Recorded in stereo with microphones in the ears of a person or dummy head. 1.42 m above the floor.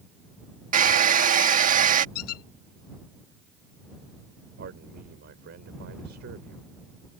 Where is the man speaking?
65° right (ahead or behind).